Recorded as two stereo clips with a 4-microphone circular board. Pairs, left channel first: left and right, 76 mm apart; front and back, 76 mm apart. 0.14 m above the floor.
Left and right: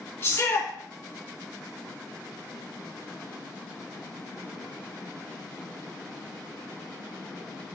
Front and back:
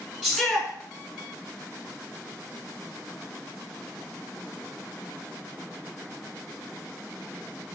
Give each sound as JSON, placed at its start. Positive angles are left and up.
{"t": 0.2, "sound": "a shout", "azimuth_deg": 100, "distance_m": 1.9}